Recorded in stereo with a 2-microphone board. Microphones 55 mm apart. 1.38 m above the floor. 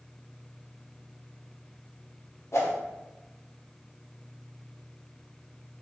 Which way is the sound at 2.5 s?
60° left (ahead or behind).